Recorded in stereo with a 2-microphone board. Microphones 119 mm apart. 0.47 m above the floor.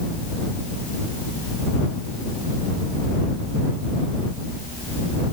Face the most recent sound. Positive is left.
No sound to turn to.